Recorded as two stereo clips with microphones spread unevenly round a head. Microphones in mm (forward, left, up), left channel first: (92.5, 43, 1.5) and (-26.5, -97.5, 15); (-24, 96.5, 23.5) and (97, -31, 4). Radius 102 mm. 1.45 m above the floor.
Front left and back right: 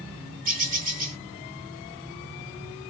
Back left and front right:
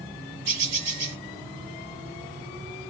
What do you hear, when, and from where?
0.5 s a bird: 85° right, 1.5 m